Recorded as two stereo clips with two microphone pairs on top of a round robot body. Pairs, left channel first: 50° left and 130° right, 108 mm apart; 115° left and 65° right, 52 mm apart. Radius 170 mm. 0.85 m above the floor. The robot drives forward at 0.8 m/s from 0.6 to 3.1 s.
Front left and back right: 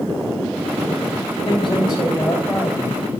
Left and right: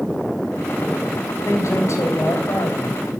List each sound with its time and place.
1.4 s a man speaking: 95° left, 2.5 m; by 3.0 s 125° left, 2.5 m